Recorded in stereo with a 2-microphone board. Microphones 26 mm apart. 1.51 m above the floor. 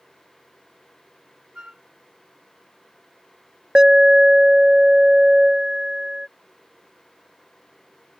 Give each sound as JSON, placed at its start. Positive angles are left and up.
{"t": 1.6, "sound": "a flute", "side_deg": -30}
{"t": 3.8, "sound": "an alarm", "side_deg": -30}